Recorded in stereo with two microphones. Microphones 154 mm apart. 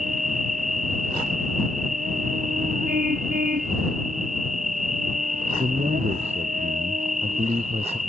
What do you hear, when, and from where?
0.0 s an insect: 55° right (ahead or behind)
2.9 s a car horn: 70° right (ahead or behind)
5.6 s a man speaking: 40° right (ahead or behind)